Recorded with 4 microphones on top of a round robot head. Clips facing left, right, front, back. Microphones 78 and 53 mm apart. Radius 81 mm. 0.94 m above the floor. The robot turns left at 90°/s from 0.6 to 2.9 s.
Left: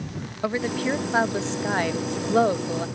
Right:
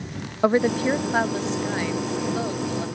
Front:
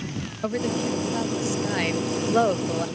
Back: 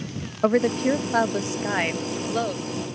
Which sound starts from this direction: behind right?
A woman speaking, at 0.4 s.